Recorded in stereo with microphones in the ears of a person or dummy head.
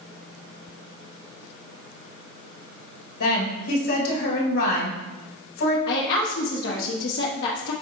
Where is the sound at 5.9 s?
75° left (ahead or behind), 0.9 m.